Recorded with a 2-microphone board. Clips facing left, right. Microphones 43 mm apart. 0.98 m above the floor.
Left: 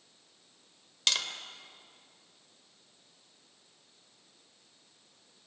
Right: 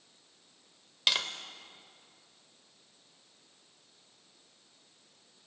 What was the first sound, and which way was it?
Tapping, 10° right (ahead or behind).